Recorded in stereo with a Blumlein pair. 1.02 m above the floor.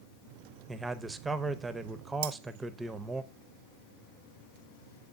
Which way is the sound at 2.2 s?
55° right.